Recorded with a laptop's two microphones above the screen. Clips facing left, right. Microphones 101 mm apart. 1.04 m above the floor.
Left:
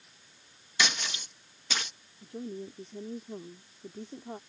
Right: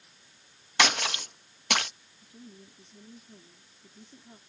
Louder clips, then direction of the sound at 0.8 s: Right 6 dB; 70° right (ahead or behind).